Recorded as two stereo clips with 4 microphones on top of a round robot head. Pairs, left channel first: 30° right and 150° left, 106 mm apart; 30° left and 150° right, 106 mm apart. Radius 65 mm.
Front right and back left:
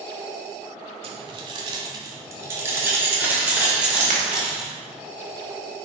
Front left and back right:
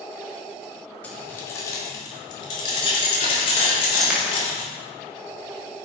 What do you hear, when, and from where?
1.0 s keys jangling: 110° left, 1.4 m; by 4.7 s 65° left, 3 m
4.0 s a dropped coin: 125° left, 3 m